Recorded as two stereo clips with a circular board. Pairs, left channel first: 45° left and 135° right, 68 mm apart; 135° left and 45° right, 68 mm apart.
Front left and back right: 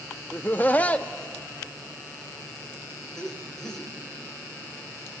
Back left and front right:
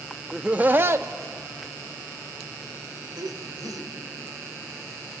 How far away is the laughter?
About 0.6 m.